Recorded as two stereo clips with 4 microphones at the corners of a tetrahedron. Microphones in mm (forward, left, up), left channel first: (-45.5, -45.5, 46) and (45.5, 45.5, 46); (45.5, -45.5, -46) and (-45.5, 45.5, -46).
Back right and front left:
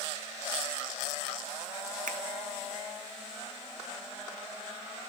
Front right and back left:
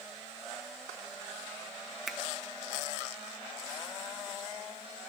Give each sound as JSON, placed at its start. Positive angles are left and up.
{"t": 2.1, "sound": "a finger snap", "azimuth_deg": 45, "distance_m": 0.6}